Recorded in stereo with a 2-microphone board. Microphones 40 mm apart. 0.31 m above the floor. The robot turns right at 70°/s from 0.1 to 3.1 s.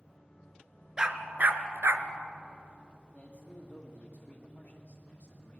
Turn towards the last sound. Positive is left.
turn(degrees=40)  # may be behind; listen again after turning